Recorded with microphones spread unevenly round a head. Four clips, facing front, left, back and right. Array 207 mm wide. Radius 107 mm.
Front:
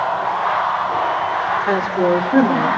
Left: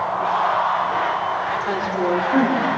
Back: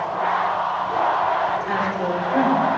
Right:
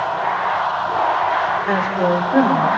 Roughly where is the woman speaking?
Ahead.